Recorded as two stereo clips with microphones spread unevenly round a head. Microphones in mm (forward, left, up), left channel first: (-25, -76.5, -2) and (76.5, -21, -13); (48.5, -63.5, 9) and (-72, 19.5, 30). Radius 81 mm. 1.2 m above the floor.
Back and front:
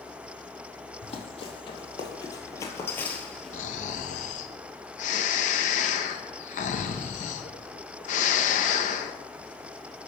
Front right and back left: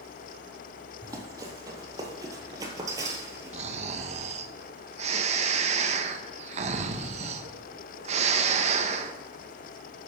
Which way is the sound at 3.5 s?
175° right.